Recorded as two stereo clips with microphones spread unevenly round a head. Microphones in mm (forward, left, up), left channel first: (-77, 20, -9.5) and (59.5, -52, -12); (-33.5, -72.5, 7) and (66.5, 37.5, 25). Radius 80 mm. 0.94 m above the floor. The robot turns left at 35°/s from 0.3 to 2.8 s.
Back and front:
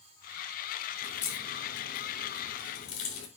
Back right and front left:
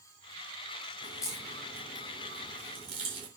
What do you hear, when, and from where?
1.0 s a crack: 165° left, 4 m; by 3.3 s 100° left, 4 m